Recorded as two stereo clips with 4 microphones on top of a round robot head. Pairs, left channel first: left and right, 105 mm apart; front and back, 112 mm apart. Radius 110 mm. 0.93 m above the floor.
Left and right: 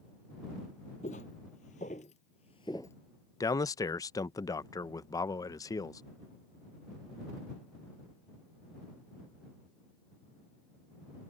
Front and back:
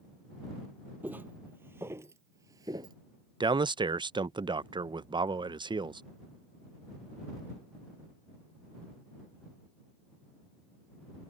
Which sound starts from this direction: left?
Footsteps, at 1.0 s.